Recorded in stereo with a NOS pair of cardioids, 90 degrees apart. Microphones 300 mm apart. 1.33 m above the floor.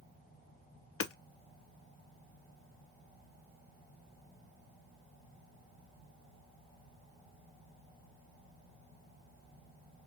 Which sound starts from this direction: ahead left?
Hammering, at 1.0 s.